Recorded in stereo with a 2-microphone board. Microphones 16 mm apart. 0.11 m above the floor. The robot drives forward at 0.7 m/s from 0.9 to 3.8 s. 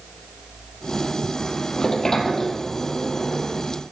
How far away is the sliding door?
About 1.8 m.